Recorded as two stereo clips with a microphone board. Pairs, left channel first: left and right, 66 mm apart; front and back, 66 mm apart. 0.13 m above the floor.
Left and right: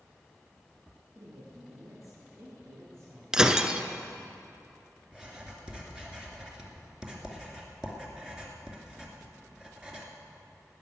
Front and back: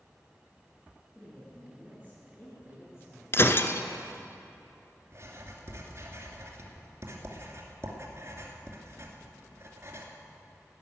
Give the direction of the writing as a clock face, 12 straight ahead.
5 o'clock.